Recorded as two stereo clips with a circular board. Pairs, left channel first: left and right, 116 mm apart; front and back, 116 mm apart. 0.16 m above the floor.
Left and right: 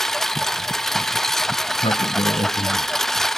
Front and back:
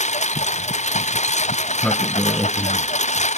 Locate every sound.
0.0 s a lawn mower: 5° left
1.6 s a sliding door: 75° left